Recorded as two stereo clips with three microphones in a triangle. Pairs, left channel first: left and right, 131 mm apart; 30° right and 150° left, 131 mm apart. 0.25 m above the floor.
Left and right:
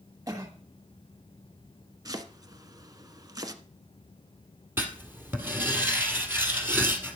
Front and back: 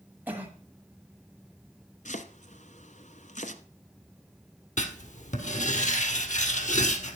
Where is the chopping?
30° right, 1.1 m.